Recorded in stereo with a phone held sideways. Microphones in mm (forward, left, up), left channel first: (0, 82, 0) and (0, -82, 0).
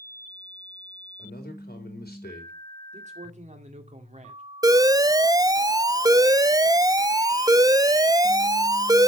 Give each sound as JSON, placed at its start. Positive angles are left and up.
{"t": 1.2, "sound": "a man speaking", "side_deg": 75, "distance_m": 3.5}
{"t": 2.9, "sound": "a man speaking", "side_deg": -45, "distance_m": 2.0}
{"t": 4.6, "sound": "an alarm", "side_deg": -20, "distance_m": 0.5}